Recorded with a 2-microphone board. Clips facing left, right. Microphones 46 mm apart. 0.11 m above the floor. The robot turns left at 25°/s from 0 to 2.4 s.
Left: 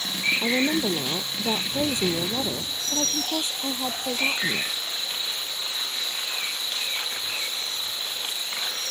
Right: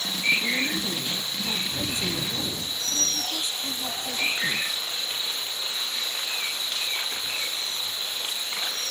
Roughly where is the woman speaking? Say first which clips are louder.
Left 4 dB; left.